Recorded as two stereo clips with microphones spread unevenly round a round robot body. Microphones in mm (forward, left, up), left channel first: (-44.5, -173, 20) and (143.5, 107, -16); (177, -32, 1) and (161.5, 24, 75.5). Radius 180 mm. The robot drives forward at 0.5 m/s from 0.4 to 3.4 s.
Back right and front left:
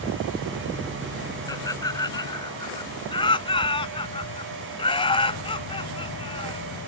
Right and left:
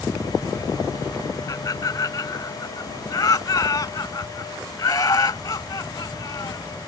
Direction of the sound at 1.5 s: 45° right.